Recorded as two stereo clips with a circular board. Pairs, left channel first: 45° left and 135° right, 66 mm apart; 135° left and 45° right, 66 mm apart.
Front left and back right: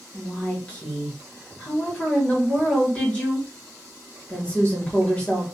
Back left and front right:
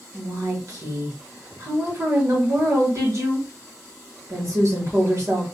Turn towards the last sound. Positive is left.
turn(degrees=-25)